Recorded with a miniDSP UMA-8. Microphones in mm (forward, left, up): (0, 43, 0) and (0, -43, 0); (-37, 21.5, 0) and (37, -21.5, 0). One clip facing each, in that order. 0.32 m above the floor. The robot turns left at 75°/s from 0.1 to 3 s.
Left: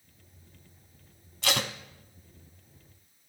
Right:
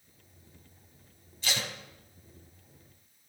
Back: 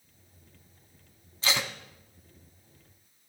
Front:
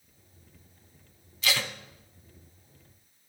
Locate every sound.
1.4 s tape being pulled: 90° left, 0.8 m; by 1.7 s 70° left, 0.8 m